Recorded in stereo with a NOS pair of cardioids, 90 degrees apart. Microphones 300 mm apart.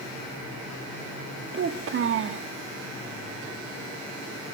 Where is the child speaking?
45° right, 1.2 m.